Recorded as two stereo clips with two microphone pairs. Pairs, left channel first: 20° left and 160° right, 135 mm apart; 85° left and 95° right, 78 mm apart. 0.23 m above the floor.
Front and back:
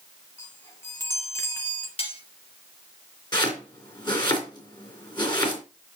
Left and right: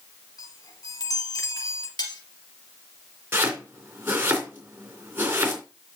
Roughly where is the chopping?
Ahead right.